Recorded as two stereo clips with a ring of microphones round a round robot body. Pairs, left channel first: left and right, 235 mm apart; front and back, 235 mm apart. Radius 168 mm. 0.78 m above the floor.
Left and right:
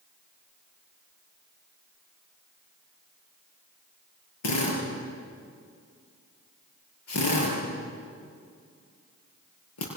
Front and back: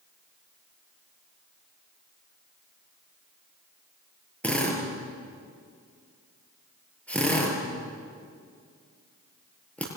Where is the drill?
85° left, 7 m.